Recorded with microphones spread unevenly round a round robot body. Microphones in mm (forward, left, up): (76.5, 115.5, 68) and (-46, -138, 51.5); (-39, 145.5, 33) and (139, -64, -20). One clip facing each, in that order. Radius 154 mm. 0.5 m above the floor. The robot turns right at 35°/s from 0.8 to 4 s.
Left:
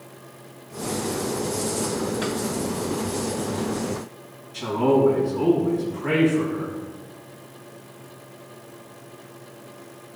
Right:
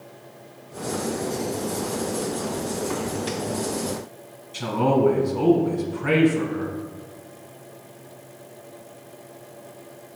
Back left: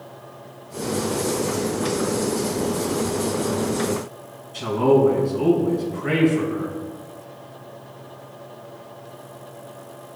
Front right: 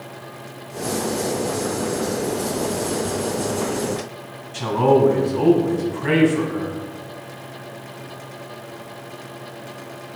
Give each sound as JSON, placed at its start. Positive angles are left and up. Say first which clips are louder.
{"t": 4.5, "sound": "a man speaking", "louder": "left 2 dB, even", "azimuth_deg": -70, "distance_m": 3.5}